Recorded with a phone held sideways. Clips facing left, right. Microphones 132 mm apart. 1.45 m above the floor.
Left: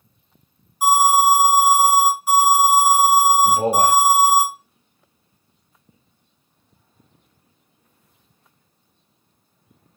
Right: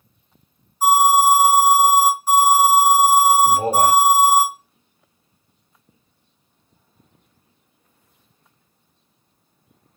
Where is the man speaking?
20° left (ahead or behind), 1.0 m.